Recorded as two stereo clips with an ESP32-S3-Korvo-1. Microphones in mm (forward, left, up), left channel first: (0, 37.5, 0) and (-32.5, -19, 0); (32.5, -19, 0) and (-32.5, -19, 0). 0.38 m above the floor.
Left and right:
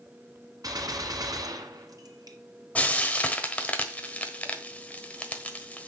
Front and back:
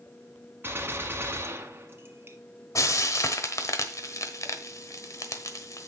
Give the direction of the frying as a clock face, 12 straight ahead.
12 o'clock.